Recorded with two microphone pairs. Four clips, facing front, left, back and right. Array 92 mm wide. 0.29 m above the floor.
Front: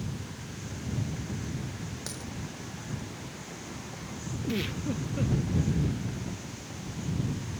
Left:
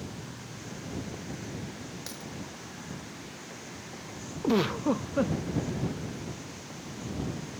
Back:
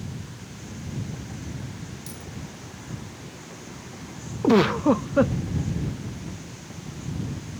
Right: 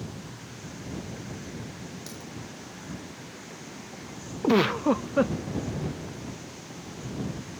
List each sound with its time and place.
2.1 s a dropped coin: 35° left
4.4 s a giggle: 145° right